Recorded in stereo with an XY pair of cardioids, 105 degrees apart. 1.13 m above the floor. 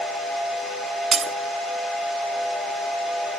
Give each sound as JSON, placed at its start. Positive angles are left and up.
{"t": 1.1, "sound": "breaking glass", "azimuth_deg": -45, "distance_m": 1.5}